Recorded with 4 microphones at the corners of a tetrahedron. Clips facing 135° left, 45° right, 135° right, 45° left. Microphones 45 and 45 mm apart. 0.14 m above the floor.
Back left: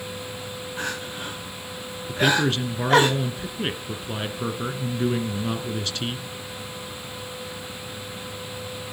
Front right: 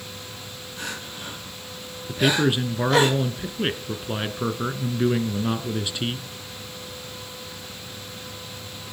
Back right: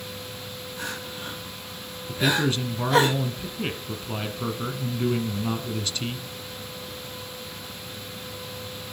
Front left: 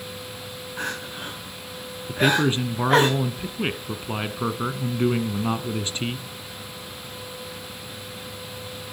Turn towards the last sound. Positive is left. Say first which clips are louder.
# even, front left 3 dB
turn(degrees=20)